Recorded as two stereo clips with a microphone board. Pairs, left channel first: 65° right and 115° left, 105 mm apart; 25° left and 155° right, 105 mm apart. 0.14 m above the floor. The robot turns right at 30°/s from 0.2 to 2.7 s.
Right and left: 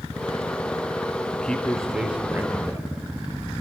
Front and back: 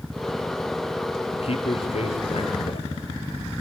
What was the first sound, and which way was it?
A man speaking, 10° left.